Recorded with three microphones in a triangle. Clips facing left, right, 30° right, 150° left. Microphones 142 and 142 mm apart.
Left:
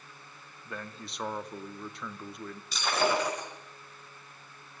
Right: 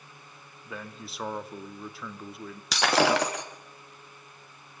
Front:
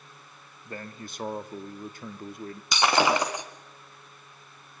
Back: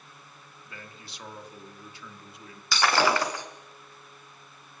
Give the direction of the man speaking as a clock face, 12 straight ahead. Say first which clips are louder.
Right 1 dB, front 9 dB; 12 o'clock.